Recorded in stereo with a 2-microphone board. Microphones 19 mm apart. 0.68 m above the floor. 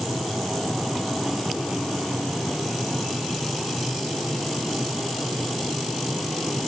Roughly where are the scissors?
I don't hear scissors.